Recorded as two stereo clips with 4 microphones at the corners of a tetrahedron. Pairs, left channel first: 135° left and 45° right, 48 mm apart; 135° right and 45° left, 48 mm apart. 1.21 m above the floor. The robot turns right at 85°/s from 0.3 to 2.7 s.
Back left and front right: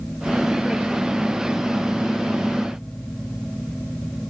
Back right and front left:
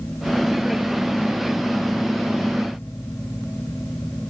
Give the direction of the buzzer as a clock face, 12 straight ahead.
I don't hear a buzzer.